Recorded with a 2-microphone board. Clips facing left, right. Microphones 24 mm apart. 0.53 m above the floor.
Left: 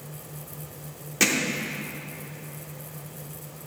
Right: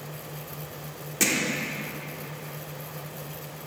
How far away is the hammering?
About 1.1 m.